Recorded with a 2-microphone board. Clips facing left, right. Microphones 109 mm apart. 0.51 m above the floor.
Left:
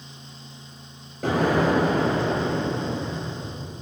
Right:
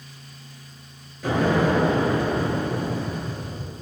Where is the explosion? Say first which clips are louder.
Even; 55° left (ahead or behind), 7 m.